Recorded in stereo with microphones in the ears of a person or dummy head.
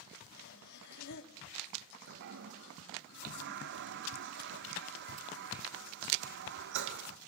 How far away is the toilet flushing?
About 1.0 m.